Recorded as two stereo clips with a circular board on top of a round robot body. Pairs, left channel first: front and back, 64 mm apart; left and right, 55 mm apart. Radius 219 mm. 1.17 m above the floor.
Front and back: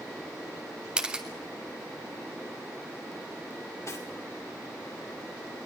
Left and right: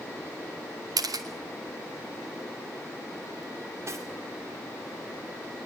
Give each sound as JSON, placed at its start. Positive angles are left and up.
{"t": 1.0, "sound": "a camera shutter", "azimuth_deg": -105, "distance_m": 0.9}
{"t": 3.9, "sound": "cutlery clinking", "azimuth_deg": -50, "distance_m": 2.0}